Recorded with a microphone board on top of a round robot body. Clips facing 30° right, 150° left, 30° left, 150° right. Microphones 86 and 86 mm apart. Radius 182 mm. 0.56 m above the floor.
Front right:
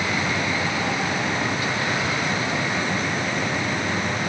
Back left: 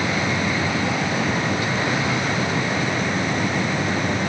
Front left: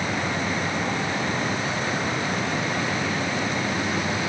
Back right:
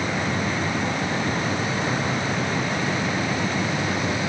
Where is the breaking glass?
I don't hear breaking glass.